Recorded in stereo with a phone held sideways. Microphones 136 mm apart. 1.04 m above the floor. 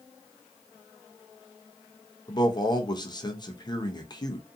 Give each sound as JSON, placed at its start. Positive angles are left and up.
{"t": 2.3, "sound": "a man speaking", "side_deg": 30, "distance_m": 0.6}